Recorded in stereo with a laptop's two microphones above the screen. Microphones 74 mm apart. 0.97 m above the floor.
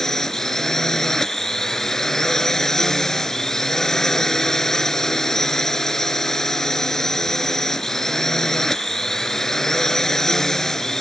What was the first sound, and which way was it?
A drone, 5° left (ahead or behind).